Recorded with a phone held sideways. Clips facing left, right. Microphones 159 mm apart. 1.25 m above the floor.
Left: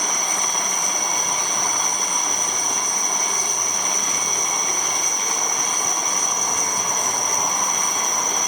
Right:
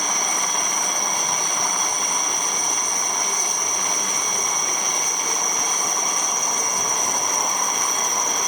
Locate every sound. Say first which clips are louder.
0.0 s an insect: even; 65° right (ahead or behind), 7.5 m